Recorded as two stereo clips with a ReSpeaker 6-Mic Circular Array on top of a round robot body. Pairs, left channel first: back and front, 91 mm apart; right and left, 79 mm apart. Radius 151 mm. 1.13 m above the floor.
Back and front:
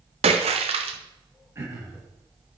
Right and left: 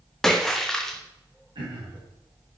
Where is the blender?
I don't hear a blender.